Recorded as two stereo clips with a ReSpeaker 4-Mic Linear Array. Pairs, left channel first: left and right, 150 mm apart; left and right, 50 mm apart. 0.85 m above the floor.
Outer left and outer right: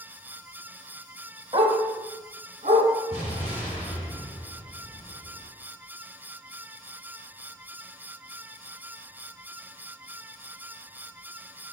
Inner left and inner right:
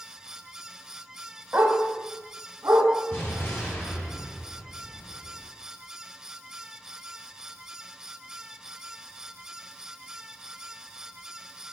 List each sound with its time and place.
1.5 s a dog barking: 40° right (ahead or behind), 1.0 m; by 2.9 s 65° right (ahead or behind), 1.8 m
3.1 s an explosion: 50° left (ahead or behind), 2.5 m